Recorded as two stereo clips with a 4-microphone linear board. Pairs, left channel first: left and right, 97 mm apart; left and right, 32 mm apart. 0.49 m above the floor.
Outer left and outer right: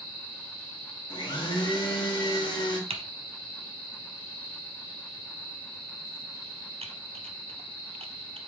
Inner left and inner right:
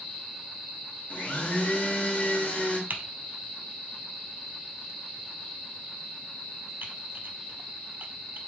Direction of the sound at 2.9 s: 80° right.